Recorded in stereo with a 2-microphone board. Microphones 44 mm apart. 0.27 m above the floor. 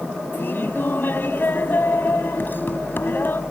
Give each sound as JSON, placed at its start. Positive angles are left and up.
{"t": 0.3, "sound": "laughter", "side_deg": 50}